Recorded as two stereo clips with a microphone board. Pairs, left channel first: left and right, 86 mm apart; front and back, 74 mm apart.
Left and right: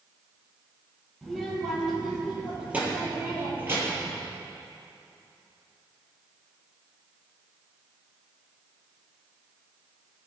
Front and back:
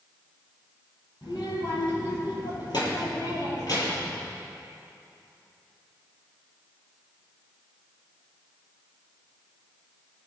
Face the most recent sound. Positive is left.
turn(degrees=-30)